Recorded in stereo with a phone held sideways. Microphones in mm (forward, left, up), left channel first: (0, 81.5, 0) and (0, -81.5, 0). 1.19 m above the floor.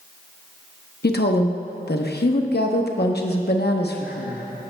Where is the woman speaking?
85° left, 0.7 m.